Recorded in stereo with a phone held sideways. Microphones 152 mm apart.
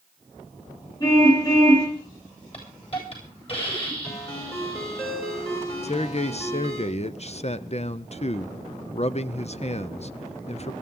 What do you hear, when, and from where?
1.0 s a car horn: 30° left (ahead or behind), 6.5 m
2.5 s a hiss: 40° left (ahead or behind), 9 m
4.0 s a ringtone: 45° left (ahead or behind), 9 m
5.8 s a man speaking: 50° left (ahead or behind), 0.6 m